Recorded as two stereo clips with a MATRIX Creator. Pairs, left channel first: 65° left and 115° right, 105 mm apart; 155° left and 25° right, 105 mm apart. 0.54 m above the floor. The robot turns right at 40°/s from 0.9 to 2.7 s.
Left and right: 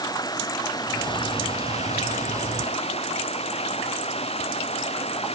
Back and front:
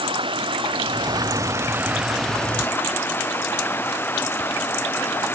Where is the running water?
15° left; by 5.3 s 85° left.